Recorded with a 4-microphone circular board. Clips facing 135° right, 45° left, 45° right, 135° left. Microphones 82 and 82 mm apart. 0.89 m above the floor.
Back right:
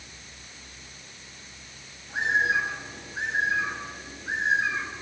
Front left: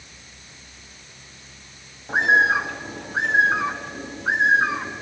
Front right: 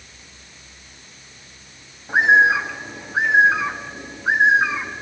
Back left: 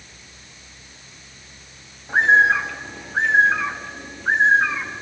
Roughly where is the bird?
Ahead left.